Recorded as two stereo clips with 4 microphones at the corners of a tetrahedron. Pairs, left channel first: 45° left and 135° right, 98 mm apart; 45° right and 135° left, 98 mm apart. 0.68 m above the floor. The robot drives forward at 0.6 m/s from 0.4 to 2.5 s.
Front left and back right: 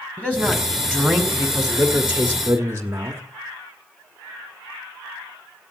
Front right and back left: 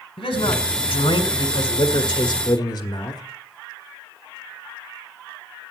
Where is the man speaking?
30° right, 1.9 m; by 3.2 s 75° right, 1.2 m.